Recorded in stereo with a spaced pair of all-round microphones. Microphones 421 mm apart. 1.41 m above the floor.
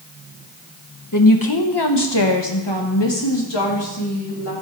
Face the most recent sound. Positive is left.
turn(degrees=70)  # may be behind; listen again after turning